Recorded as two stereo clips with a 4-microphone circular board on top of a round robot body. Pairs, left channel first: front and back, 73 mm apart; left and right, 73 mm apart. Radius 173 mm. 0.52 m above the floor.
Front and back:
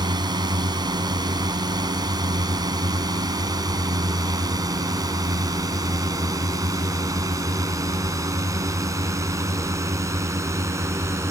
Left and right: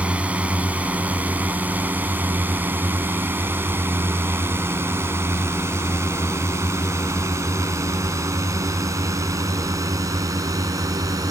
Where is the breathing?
I don't hear breathing.